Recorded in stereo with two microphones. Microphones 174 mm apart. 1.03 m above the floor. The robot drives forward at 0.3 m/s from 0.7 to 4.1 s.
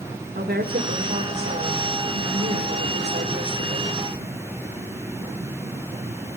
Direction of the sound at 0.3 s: 75° right (ahead or behind).